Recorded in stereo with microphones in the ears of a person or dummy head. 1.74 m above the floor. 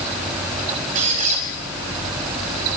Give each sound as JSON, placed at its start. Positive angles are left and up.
{"t": 0.9, "sound": "a squeak", "side_deg": -45, "distance_m": 3.0}